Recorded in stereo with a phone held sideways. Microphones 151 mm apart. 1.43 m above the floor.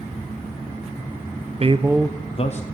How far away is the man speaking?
About 0.7 m.